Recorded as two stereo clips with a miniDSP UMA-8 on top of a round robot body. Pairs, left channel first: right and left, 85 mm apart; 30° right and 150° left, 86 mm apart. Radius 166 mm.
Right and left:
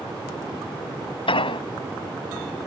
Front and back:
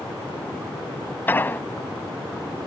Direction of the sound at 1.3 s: 100° right.